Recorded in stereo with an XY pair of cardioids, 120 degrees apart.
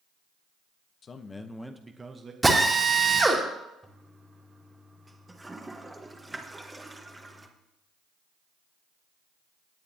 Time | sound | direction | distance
1.0 | a man speaking | 40° left | 0.9 m
2.4 | a drill | 15° right | 2 m
3.8 | a toilet flushing | 15° right | 1.3 m